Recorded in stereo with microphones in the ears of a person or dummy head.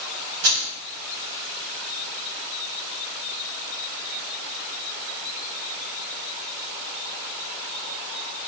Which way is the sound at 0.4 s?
70° right (ahead or behind).